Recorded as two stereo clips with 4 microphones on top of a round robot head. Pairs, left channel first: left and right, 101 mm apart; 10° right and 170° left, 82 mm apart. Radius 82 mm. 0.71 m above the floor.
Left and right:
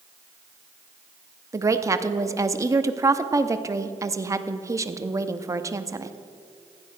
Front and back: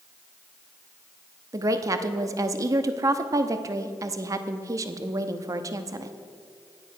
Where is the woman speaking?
145° right, 0.9 m.